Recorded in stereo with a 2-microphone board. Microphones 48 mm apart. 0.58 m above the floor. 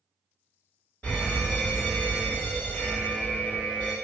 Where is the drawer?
No drawer in this recording.